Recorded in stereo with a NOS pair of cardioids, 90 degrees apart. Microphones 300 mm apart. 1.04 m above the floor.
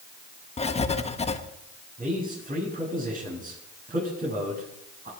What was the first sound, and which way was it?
Writing, 20° left.